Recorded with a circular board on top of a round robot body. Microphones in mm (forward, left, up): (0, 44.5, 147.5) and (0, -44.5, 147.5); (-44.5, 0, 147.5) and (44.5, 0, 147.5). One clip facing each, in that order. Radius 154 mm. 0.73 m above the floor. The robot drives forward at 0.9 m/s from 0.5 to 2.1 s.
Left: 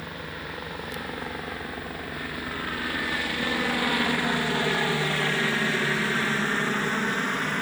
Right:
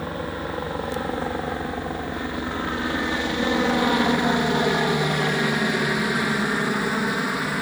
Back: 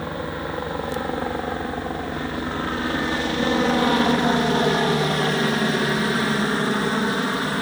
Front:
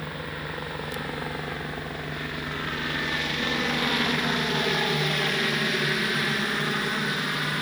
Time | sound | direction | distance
0.0 | a helicopter | 130° right | ?